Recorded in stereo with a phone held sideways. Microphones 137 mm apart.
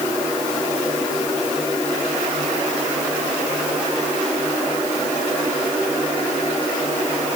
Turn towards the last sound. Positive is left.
No sound to turn to.